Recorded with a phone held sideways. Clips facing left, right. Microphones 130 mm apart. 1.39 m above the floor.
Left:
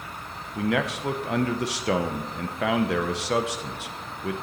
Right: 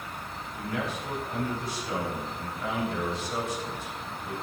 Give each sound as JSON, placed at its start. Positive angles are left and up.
{"t": 0.6, "sound": "a man speaking", "side_deg": 80, "distance_m": 0.9}